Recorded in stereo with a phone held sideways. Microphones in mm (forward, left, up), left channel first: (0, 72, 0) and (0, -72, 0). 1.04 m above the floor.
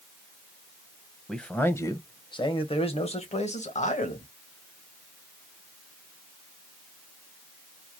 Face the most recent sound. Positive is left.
turn(degrees=60)  # may be behind; listen again after turning